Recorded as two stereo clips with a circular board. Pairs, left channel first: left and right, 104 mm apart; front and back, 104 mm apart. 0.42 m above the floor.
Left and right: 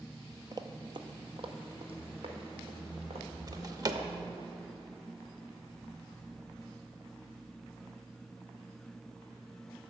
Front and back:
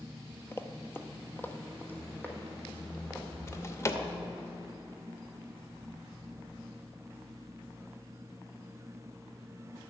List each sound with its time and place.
0.5 s running footsteps: 55° right, 0.6 m; by 4.5 s 75° right, 2.5 m
3.5 s a drawer: 50° right, 0.6 m